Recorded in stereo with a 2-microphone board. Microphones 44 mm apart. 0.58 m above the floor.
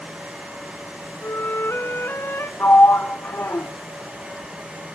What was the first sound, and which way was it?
A flute, 65° left (ahead or behind).